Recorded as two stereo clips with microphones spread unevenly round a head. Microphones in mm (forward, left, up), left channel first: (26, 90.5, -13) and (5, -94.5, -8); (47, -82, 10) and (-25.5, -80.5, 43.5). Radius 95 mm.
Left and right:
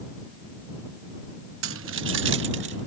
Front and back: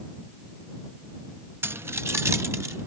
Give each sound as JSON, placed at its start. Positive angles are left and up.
{"t": 1.6, "sound": "keys jangling", "azimuth_deg": -115}